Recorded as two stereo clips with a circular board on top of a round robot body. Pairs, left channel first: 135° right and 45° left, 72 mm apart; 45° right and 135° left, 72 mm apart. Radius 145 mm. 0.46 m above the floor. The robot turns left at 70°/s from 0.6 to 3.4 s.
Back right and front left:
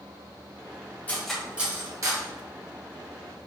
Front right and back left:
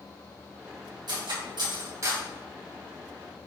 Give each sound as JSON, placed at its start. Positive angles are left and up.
{"t": 1.1, "sound": "cutlery clinking", "azimuth_deg": 155, "distance_m": 2.5}